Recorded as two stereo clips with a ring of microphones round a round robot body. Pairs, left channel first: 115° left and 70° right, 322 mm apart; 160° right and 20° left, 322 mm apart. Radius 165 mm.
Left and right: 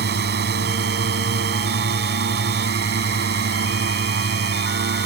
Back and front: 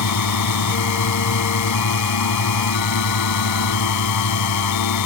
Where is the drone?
125° right.